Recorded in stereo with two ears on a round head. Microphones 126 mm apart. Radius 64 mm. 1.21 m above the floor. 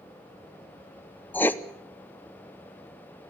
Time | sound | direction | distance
1.3 | writing | 15° left (ahead or behind) | 0.8 m